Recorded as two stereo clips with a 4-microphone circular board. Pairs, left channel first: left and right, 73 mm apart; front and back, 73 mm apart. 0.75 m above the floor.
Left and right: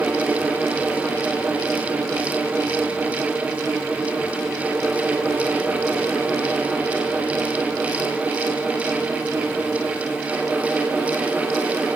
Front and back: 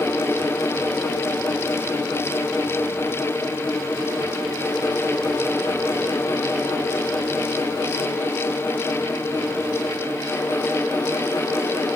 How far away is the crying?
I don't hear crying.